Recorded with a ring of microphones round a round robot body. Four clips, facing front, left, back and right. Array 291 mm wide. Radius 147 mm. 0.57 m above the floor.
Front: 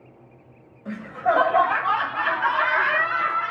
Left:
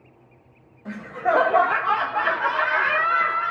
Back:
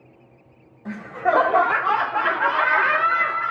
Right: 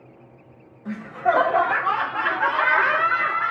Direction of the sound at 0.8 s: 170° left.